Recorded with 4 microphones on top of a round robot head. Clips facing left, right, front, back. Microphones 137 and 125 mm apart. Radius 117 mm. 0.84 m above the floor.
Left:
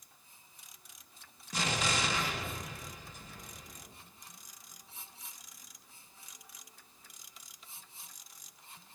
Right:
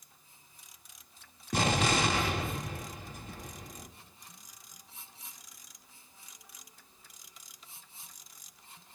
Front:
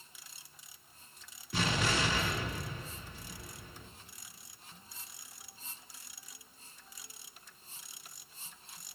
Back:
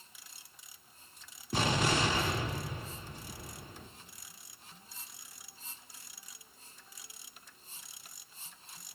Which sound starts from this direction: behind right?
An explosion, at 1.5 s.